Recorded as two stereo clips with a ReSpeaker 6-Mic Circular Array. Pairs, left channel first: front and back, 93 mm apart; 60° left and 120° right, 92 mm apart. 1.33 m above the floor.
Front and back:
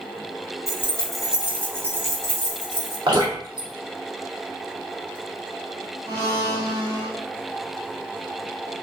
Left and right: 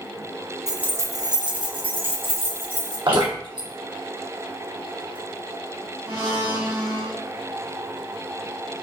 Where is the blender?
125° right, 1.5 m.